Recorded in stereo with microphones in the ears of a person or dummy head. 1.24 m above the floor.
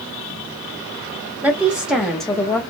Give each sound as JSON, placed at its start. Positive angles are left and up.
{"t": 1.4, "sound": "a woman speaking", "side_deg": -10, "distance_m": 1.2}